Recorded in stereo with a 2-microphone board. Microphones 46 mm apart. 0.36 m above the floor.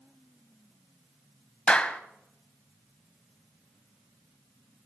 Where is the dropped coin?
No dropped coin in this recording.